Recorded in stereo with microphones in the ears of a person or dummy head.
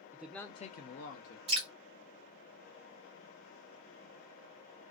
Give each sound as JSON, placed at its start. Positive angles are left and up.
{"t": 0.1, "sound": "a man speaking", "side_deg": -10, "distance_m": 0.6}
{"t": 1.5, "sound": "dripping", "side_deg": -35, "distance_m": 0.8}